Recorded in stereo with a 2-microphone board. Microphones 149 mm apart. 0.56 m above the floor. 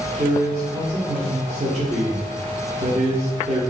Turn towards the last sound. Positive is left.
turn(degrees=-40)  # may be behind; listen again after turning